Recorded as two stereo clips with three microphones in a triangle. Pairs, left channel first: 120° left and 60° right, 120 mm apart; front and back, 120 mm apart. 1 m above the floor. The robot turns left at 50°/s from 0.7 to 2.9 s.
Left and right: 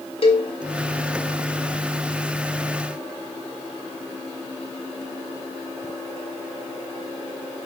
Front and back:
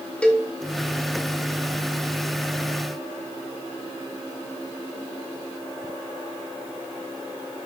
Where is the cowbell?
80° left, 1.8 m.